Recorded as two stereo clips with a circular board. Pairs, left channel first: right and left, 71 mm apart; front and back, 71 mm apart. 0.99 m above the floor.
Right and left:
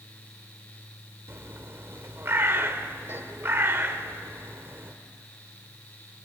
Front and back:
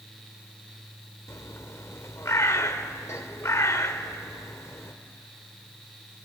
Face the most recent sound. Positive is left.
turn(degrees=40)